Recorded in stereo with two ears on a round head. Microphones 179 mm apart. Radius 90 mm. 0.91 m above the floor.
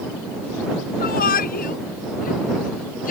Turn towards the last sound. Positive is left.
turn(degrees=40)  # may be behind; listen again after turning